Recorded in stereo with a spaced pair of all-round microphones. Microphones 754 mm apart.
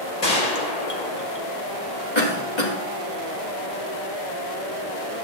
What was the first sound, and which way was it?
A gunshot, 55° left (ahead or behind).